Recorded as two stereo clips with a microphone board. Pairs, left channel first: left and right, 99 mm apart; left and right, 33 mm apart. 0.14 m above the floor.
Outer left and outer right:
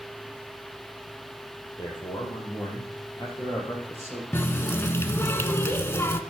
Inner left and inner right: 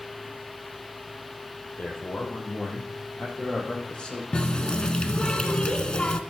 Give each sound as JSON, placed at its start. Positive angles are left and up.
{"t": 1.8, "sound": "a man speaking", "side_deg": 55, "distance_m": 4.5}
{"t": 4.3, "sound": "a running tap", "side_deg": 25, "distance_m": 0.8}